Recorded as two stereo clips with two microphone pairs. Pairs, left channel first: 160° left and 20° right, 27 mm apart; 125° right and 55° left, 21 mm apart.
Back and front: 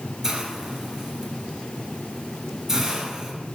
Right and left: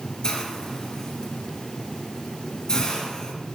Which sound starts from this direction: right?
A hiss, at 0.2 s.